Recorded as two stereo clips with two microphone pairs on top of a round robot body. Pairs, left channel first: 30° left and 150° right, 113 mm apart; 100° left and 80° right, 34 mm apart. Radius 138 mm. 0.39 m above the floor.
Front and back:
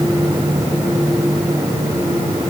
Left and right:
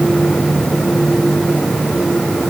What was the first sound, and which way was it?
Only background noise.